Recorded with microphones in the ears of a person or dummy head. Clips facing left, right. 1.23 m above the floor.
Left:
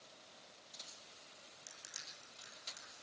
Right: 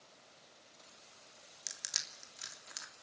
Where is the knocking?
No knocking in this recording.